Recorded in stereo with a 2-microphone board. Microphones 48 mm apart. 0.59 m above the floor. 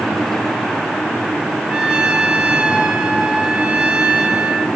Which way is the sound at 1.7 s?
25° right (ahead or behind).